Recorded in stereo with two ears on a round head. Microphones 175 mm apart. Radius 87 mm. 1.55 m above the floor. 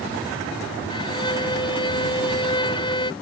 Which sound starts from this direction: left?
A violin, at 0.9 s.